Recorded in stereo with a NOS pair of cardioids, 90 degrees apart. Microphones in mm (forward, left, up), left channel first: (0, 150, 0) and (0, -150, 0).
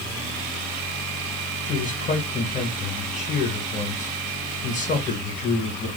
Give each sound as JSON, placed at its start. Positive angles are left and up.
{"t": 1.7, "sound": "a man speaking", "azimuth_deg": 25, "distance_m": 2.0}